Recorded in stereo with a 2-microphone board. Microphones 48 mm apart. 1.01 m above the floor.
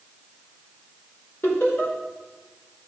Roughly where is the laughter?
Left.